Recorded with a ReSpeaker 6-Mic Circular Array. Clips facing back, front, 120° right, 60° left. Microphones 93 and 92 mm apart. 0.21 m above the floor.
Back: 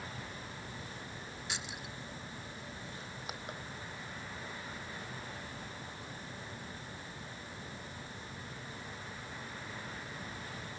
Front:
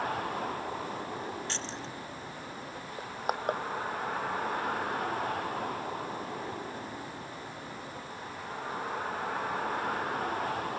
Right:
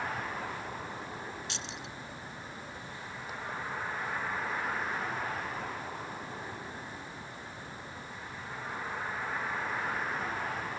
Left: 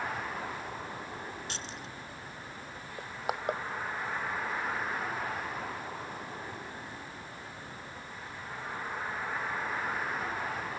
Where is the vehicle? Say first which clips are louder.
Front 13 dB, even; 30° right.